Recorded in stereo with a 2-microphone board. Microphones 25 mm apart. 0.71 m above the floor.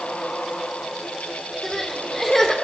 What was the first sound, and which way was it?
Crying, 25° left (ahead or behind).